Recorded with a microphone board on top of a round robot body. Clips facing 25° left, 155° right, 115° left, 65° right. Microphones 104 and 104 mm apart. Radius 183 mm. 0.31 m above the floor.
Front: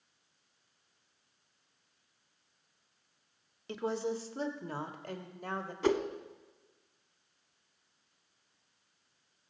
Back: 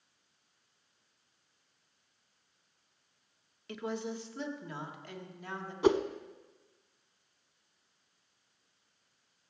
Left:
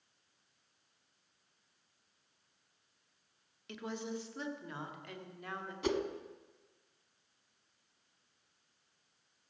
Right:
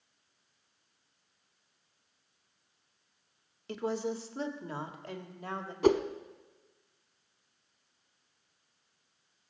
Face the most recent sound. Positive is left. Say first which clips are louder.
# back 3 dB, right 9 dB
turn(degrees=-90)